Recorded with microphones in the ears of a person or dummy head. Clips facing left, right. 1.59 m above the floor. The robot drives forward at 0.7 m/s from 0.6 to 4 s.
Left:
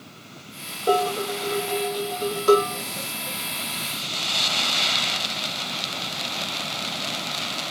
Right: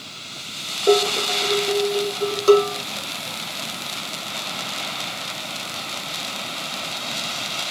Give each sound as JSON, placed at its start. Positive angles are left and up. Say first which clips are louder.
{"t": 0.9, "sound": "dishes clattering", "louder": "right 4 dB", "side_deg": -35, "distance_m": 3.5}